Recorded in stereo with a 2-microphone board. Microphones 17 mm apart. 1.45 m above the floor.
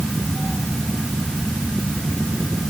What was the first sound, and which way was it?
Only background noise.